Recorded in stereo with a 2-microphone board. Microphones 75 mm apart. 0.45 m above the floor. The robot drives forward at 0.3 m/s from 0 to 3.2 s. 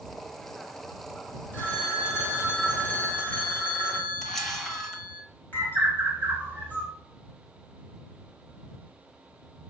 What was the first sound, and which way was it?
A phone ringing, 20° left (ahead or behind).